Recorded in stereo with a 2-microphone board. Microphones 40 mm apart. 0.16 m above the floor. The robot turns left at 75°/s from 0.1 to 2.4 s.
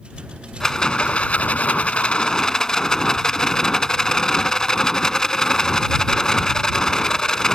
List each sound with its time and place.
0.6 s a rattle: 160° left; by 7.6 s 25° left